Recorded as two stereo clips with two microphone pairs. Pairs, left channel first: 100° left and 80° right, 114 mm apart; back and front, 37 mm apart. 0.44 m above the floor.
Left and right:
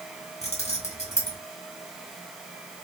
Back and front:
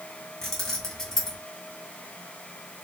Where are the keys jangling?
100° left, 2.5 m.